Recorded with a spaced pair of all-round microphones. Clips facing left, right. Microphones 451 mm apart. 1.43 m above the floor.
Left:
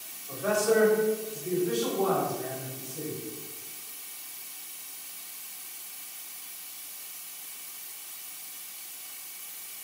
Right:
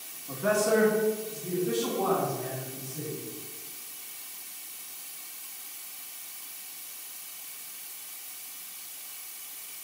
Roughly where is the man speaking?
Right.